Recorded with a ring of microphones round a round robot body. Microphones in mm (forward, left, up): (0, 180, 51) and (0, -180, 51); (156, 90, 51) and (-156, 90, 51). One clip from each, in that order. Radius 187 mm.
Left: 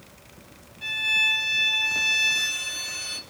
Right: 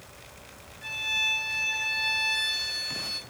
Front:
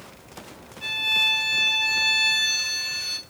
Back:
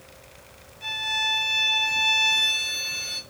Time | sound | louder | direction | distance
0.8 | a violin | left 5 dB, front 4 dB | 55° left | 0.8 m